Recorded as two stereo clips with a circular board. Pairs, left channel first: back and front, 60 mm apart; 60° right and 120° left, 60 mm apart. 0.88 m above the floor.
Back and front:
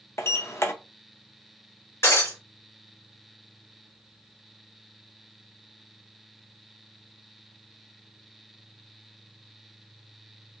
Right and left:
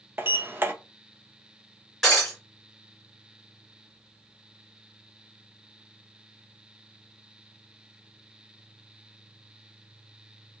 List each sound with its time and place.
0.2 s a sliding door: 160° left, 0.5 m
2.0 s breaking glass: 145° right, 2 m